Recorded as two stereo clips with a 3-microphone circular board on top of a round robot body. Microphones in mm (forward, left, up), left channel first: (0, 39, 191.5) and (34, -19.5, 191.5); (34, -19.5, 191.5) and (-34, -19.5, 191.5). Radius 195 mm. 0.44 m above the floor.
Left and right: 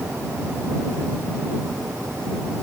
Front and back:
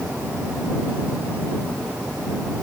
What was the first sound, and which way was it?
Only background noise.